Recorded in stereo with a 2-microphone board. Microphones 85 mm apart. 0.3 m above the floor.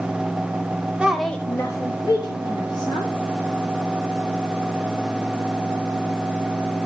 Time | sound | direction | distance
1.0 | a woman speaking | 15° right (ahead or behind) | 0.9 m